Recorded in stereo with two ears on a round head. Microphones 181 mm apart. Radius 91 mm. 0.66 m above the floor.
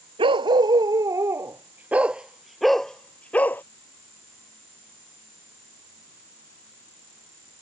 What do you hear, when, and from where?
0.2 s a dog barking: 25° right (ahead or behind); by 3.6 s 10° left (ahead or behind)